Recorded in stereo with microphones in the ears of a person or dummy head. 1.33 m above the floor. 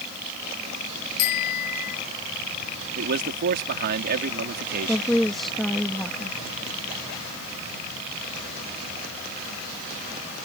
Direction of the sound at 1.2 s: 50° left (ahead or behind).